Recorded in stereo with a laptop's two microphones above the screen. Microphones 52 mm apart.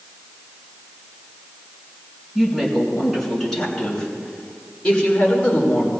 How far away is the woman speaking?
About 6 m.